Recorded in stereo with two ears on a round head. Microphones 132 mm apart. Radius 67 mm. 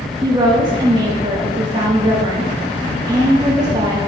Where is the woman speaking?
30° right (ahead or behind), 1.5 m.